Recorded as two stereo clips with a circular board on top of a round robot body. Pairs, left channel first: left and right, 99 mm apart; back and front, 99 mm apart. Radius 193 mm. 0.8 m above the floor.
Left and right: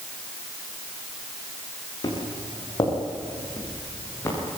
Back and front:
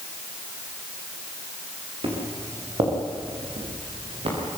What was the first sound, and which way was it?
Footsteps, 35° left.